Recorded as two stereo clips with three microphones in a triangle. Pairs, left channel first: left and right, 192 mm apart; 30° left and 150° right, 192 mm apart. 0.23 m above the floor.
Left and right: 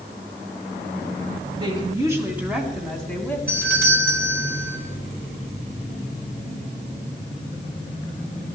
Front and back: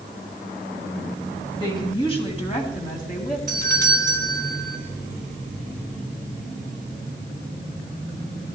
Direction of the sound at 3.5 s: 110° right.